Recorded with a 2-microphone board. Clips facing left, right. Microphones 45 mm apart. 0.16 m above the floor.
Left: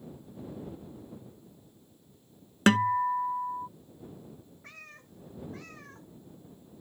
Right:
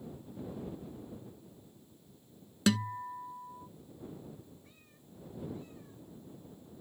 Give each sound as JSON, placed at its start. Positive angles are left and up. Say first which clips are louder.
{"t": 2.7, "sound": "a guitar", "louder": "left 8 dB", "side_deg": 50}
{"t": 4.6, "sound": "a cat meowing", "louder": "left 10 dB", "side_deg": 80}